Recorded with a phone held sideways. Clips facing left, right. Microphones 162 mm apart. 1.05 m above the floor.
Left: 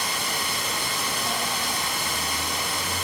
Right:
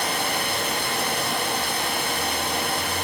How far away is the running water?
About 1.6 m.